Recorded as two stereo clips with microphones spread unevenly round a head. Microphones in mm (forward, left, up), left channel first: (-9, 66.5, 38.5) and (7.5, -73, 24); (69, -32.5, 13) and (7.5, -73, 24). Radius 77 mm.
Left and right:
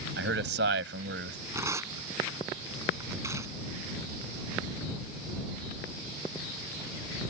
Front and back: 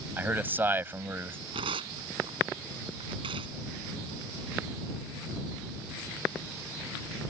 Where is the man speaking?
85° right; by 1.4 s 90° right.